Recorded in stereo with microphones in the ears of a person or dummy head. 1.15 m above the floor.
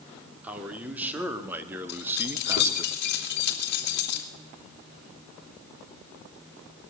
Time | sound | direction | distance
0.4 | a man speaking | centre (ahead or behind) | 3 m
1.9 | keys jangling | 70° left (ahead or behind) | 2.5 m